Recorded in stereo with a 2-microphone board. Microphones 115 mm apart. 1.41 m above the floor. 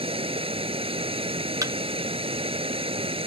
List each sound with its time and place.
0.0 s running water: 55° right (ahead or behind)
1.6 s a thud: 30° right (ahead or behind)